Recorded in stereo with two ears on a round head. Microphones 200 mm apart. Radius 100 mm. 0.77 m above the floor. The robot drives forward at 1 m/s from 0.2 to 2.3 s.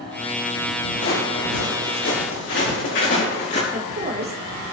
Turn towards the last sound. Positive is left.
turn(degrees=-40)  # may be behind; listen again after turning